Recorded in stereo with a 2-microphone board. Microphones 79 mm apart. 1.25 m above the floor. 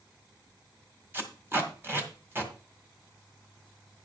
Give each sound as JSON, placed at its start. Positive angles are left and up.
{"t": 1.1, "sound": "tape being pulled", "side_deg": -30, "distance_m": 1.7}